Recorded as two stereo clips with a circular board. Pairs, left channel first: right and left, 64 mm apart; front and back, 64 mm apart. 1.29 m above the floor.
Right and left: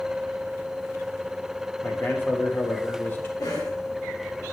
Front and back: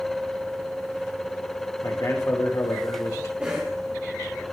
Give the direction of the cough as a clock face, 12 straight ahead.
4 o'clock.